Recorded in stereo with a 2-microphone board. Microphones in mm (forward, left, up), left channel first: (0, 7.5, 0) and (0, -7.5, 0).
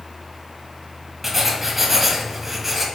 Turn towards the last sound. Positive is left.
turn(degrees=-15)  # may be behind; listen again after turning